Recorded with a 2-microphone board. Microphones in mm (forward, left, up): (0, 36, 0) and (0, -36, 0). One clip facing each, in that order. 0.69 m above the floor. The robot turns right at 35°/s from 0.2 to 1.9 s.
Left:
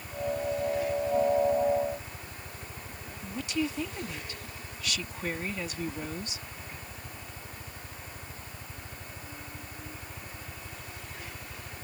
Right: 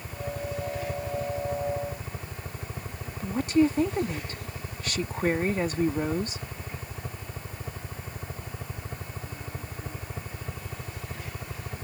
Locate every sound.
0.0 s a helicopter: 135° right; by 11.8 s 75° right
3.2 s a woman speaking: 40° right (ahead or behind)